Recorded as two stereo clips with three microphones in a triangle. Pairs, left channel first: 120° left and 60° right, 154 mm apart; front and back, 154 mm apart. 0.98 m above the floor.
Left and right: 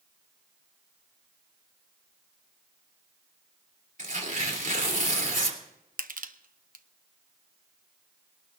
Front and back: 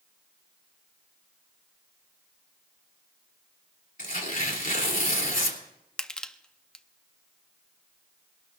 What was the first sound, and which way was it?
Tearing paper, 30° right.